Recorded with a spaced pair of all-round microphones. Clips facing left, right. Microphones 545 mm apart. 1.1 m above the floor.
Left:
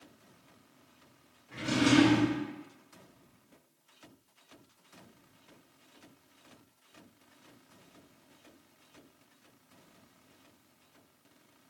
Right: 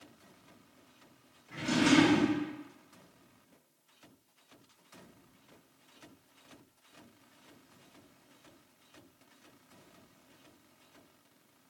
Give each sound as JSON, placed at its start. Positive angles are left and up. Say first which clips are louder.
{"t": 1.5, "sound": "a drawer", "louder": "left 1 dB", "side_deg": 0, "distance_m": 1.4}